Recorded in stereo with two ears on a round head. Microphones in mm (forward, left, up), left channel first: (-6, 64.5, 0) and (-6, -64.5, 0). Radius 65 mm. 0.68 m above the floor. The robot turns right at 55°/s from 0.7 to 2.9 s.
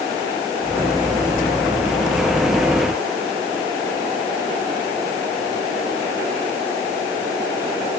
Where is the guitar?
No guitar in this recording.